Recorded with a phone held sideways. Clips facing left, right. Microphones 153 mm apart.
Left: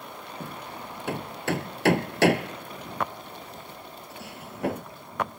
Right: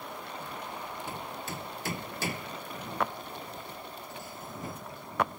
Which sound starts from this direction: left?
Hammering, at 0.4 s.